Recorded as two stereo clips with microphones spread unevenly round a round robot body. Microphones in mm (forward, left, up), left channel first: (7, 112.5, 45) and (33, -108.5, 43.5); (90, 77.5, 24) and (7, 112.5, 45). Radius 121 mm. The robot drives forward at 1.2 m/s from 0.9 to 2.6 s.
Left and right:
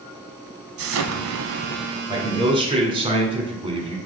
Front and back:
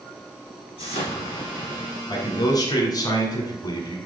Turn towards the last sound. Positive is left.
turn(degrees=-25)